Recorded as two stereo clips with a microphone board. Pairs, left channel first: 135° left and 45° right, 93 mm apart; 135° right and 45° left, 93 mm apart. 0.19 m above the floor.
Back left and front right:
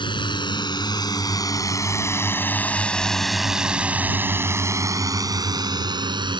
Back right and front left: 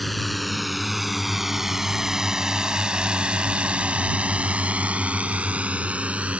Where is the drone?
135° left; by 6.4 s 30° right.